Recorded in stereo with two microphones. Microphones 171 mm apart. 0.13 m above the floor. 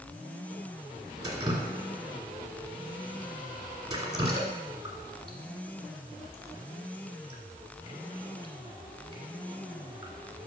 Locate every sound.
1.2 s dripping: 25° right (ahead or behind), 1.6 m